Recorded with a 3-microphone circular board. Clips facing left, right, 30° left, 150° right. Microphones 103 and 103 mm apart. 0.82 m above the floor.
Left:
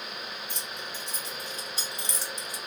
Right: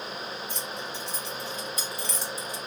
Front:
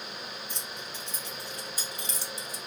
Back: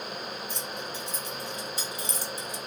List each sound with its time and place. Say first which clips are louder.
0.5 s keys jangling: right 4 dB, back 5 dB; 130° left, 2 m; by 2.6 s 155° right, 0.6 m